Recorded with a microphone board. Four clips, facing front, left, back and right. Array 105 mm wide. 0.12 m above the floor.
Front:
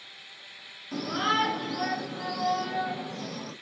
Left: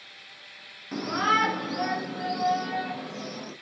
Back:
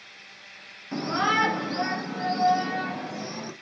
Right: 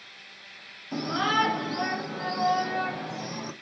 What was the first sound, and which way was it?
A shout, 135° left.